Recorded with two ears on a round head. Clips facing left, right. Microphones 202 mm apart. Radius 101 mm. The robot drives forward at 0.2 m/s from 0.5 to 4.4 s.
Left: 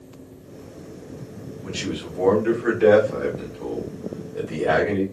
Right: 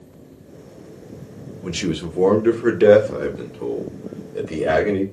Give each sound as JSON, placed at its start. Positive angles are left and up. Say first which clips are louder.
{"t": 1.6, "sound": "a man speaking", "louder": "right 5 dB", "side_deg": -65, "distance_m": 0.6}